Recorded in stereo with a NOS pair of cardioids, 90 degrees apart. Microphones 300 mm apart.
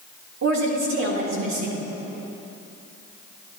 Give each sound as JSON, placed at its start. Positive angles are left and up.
{"t": 0.4, "sound": "a woman speaking", "azimuth_deg": -65, "distance_m": 3.5}